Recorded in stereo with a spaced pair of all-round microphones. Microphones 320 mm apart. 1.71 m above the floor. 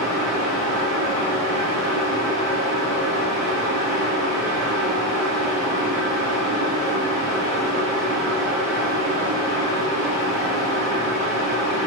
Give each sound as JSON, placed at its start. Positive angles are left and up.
{"t": 0.0, "sound": "a fan", "side_deg": -50, "distance_m": 2.0}